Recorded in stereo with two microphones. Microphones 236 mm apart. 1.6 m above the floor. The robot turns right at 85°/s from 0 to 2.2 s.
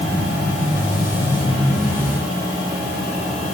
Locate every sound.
Only background noise.